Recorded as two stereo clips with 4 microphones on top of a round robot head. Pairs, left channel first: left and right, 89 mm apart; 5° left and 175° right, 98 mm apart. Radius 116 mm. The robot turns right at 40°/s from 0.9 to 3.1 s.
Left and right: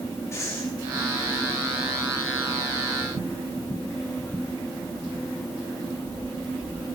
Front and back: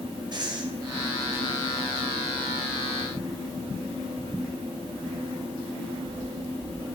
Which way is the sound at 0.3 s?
145° left.